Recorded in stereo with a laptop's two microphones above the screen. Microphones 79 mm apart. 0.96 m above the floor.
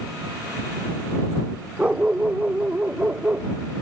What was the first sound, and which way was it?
A dog barking, 15° right (ahead or behind).